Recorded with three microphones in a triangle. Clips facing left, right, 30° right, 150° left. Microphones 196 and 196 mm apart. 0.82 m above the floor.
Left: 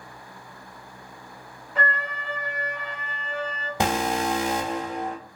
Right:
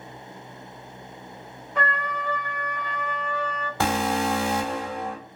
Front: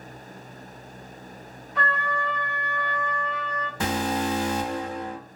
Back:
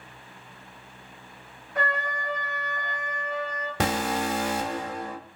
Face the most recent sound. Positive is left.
turn(degrees=165)